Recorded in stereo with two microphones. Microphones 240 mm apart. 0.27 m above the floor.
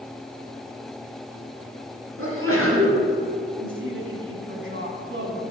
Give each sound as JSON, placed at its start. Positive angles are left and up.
{"t": 2.2, "sound": "a sneeze", "side_deg": -65, "distance_m": 3.0}
{"t": 3.6, "sound": "a woman speaking", "side_deg": -55, "distance_m": 2.5}